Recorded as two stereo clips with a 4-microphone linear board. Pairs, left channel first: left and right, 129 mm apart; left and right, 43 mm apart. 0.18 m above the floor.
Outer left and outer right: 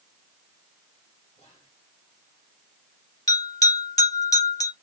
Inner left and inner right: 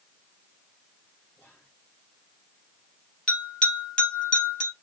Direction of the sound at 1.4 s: 45° left (ahead or behind).